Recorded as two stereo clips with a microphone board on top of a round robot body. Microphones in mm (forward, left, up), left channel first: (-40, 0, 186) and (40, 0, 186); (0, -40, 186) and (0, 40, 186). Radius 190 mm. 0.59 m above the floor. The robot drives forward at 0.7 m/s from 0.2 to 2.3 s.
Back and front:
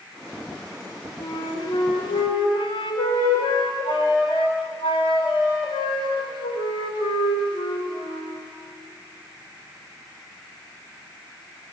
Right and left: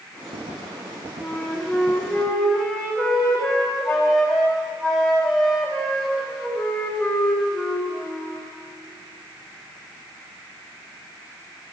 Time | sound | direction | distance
1.2 | a flute | 170° right | 2.5 m